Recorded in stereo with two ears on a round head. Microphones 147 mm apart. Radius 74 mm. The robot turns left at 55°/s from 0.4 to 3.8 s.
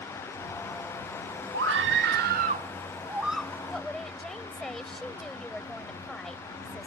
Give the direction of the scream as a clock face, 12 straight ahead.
3 o'clock.